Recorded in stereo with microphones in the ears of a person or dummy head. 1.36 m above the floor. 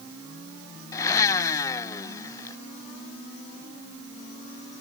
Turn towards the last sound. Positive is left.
turn(degrees=15)  # may be behind; listen again after turning